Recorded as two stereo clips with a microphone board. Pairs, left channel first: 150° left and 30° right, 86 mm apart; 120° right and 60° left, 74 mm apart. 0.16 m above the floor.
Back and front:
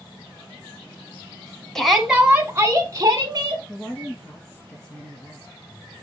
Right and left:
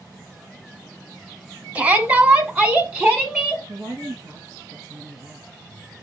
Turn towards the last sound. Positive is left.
turn(degrees=70)